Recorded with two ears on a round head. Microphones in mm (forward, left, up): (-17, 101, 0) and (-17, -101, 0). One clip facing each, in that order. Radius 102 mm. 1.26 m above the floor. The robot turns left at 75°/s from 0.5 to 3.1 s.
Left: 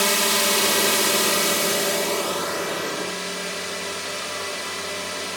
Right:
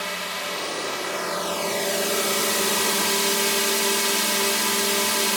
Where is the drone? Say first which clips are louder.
Left 9 dB; 105° left; by 5.4 s 90° right.